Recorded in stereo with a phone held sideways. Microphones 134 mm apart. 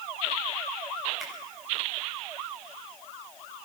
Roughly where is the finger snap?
Centre.